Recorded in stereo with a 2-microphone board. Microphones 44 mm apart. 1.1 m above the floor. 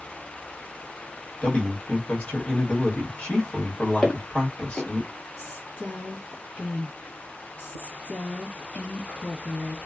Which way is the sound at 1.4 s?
30° left (ahead or behind).